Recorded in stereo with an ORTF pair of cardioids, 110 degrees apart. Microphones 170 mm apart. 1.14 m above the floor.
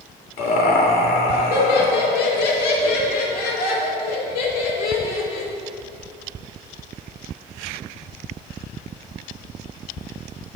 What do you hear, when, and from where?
0.4 s laughter: 70° left, 2.5 m